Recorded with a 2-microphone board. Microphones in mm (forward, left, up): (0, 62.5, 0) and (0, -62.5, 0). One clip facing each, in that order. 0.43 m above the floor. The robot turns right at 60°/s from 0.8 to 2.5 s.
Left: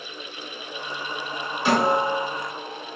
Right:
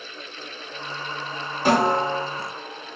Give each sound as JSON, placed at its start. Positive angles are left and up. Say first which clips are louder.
{"t": 1.6, "sound": "a snare drum", "louder": "right 1 dB", "azimuth_deg": -50, "distance_m": 1.6}